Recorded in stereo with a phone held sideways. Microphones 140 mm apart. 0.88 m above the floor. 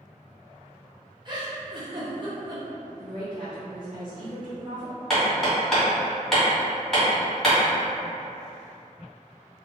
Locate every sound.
1.2 s a giggle: 35° right (ahead or behind), 0.6 m
3.0 s a woman speaking: 35° right (ahead or behind), 0.9 m
5.1 s hammering: 5° left (ahead or behind), 1.5 m